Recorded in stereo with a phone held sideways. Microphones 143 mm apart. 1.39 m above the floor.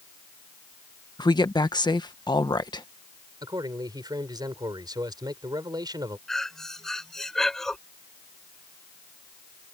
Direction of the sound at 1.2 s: 30° left (ahead or behind).